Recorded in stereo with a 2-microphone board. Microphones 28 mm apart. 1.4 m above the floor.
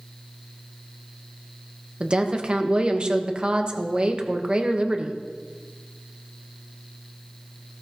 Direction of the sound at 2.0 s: 35° right (ahead or behind).